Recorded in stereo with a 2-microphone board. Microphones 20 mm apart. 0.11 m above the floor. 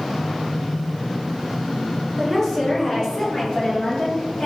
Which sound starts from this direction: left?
A woman speaking, at 2.2 s.